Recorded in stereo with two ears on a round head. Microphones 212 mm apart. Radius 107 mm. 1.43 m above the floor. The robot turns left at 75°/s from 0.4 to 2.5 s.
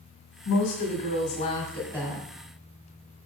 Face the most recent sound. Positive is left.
turn(degrees=-35)